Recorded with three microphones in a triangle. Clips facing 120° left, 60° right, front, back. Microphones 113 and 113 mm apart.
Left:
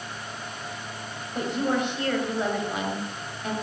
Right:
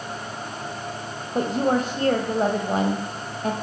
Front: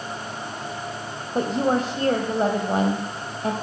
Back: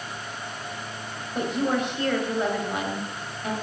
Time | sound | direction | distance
1.4 | a woman speaking | 35° right | 1.7 m